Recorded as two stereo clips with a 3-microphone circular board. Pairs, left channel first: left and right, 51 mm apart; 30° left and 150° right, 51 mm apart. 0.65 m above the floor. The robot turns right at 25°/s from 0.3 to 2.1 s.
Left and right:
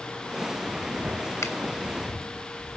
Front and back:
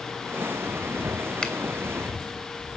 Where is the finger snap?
100° left, 3 m; by 1.5 s 105° left, 3 m.